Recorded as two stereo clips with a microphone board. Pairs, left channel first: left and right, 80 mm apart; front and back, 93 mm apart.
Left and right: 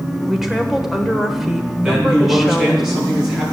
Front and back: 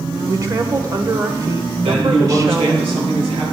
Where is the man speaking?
175° right, 7 m.